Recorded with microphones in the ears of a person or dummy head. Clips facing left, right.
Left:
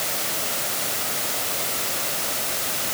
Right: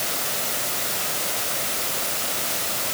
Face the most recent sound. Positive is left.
No sound to turn to.